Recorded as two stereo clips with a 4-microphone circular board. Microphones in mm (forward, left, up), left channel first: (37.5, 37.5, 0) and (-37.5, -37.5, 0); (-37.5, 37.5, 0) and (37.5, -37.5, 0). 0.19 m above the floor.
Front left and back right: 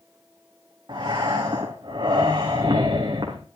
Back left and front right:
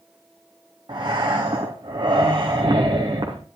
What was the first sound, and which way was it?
Breathing, 90° right.